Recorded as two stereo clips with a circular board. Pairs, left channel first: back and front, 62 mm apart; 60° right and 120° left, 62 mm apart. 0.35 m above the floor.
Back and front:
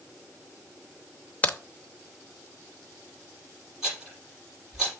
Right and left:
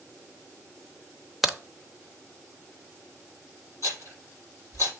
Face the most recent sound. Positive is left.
turn(degrees=-85)